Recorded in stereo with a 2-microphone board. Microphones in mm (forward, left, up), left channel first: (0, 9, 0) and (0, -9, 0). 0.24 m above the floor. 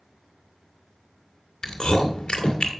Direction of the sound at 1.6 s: 50° left (ahead or behind).